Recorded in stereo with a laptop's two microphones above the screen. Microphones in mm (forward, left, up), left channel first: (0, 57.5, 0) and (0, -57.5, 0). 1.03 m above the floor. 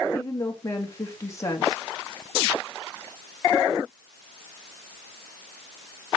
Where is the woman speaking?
30° left (ahead or behind), 1.7 m.